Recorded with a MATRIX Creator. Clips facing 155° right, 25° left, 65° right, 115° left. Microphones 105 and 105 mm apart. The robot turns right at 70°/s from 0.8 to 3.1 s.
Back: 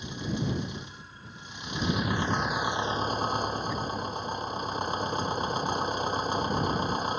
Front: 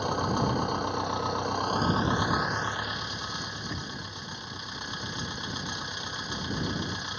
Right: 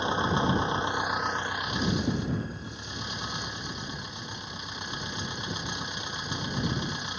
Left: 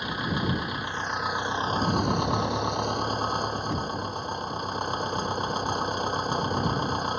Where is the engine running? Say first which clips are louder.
Front 6 dB, right 3 dB; 5° right; by 7.2 s 155° left.